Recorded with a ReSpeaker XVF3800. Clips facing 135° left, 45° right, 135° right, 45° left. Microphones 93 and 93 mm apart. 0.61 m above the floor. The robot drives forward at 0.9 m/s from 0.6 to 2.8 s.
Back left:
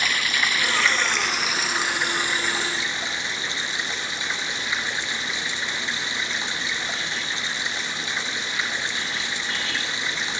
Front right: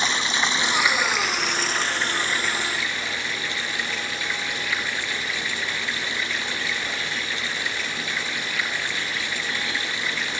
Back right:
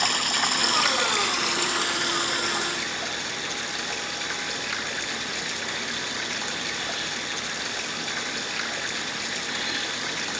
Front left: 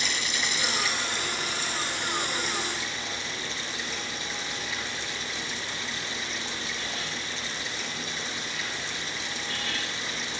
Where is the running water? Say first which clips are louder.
Front right 1 dB, back right 6 dB; 110° right, 1.1 m; by 10.4 s 155° right, 2.5 m.